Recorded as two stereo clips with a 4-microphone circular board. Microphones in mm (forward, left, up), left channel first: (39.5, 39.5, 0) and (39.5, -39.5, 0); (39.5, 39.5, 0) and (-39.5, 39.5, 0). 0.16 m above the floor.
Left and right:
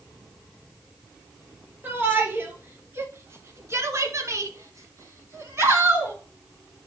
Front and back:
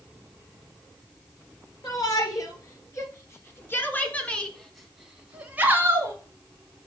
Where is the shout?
30° right, 3 m; by 6.2 s 140° right, 1.7 m.